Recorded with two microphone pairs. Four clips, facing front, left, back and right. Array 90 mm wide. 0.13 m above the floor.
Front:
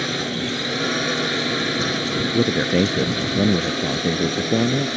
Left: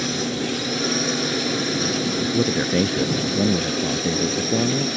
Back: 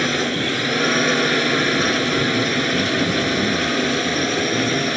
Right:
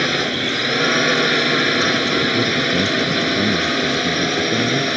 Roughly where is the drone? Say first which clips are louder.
Right 4 dB, back 4 dB; right.